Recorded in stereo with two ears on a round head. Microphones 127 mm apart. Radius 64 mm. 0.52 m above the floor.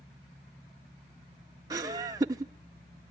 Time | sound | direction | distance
1.7 | laughter | 25° right (ahead or behind) | 0.7 m